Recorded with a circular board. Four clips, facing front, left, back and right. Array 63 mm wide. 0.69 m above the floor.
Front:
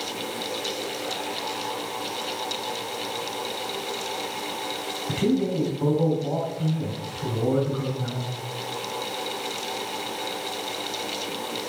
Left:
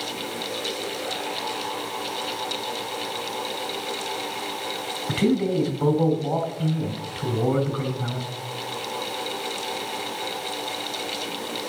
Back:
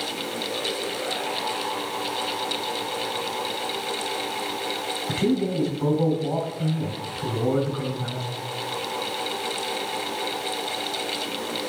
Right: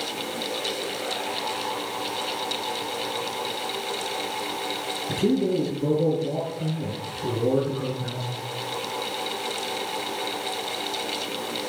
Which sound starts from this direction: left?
A man speaking, at 5.1 s.